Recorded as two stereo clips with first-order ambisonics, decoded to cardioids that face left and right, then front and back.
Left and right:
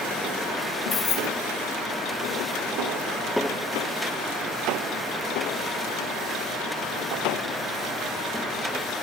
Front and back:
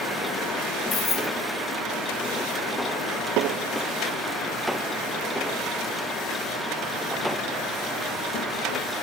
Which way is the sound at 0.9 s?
55° left.